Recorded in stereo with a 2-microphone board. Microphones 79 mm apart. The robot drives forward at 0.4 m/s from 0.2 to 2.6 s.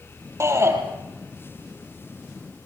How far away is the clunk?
No clunk in this recording.